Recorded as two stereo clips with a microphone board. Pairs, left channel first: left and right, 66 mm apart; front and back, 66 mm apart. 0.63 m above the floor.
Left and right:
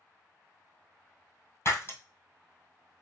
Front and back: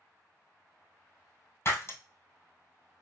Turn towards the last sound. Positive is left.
turn(degrees=45)